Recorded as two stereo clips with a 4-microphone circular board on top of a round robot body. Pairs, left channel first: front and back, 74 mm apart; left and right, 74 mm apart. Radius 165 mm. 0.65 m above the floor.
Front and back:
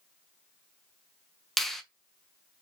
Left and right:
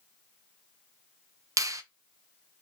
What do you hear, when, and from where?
1.6 s a finger snap: 85° right, 0.6 m